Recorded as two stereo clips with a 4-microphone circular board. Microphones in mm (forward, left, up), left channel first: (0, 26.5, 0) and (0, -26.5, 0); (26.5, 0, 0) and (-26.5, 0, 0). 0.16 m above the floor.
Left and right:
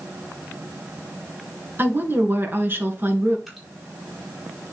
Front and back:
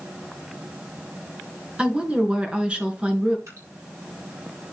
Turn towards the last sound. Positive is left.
turn(degrees=180)